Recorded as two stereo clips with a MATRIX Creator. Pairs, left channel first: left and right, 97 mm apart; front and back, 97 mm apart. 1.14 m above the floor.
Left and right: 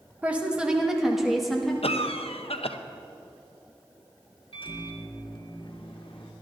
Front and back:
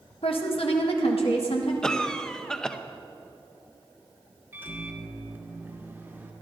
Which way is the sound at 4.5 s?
110° left.